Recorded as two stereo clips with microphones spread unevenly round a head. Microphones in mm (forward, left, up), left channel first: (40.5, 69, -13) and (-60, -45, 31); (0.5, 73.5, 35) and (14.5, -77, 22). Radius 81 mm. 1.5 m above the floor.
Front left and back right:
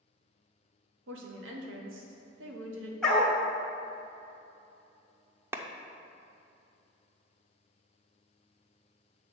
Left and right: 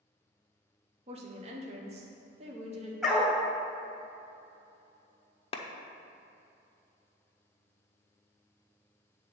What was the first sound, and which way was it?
A woman speaking, 135° right.